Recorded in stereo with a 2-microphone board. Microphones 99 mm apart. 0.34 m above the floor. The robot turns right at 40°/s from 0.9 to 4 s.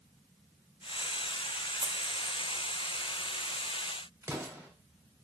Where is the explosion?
25° right (ahead or behind), 1.0 m.